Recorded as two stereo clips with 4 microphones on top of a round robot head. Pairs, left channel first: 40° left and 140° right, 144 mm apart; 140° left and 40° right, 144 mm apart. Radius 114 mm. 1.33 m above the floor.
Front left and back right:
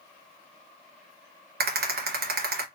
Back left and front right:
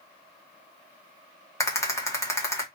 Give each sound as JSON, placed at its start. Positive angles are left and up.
{"t": 1.6, "sound": "a rattle", "azimuth_deg": -150, "distance_m": 1.3}